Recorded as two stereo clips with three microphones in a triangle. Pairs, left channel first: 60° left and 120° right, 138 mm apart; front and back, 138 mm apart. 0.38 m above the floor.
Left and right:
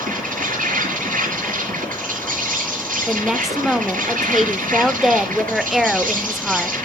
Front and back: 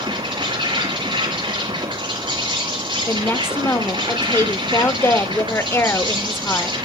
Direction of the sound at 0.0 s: 130° right.